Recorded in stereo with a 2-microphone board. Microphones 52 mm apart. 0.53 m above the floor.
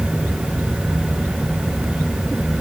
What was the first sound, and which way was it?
Only background noise.